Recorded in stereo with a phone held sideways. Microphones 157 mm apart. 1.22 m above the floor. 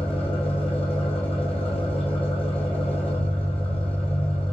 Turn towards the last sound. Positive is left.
turn(degrees=35)  # may be behind; listen again after turning